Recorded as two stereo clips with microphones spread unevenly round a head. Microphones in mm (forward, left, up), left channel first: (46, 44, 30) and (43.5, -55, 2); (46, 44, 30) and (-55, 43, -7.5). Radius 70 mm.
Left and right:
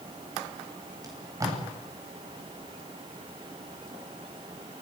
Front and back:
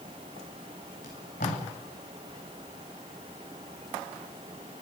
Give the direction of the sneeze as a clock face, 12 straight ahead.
I don't hear a sneeze.